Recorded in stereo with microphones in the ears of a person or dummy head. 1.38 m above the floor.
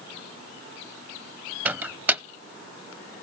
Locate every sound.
1.6 s a microwave: 10° right (ahead or behind), 0.5 m